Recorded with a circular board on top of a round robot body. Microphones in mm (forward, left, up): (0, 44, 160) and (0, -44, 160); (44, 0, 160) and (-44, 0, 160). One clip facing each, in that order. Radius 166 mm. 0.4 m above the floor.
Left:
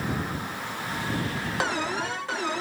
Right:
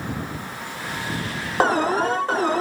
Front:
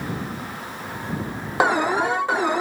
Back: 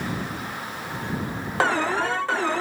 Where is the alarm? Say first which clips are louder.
Right 11 dB, front 3 dB; 70° right.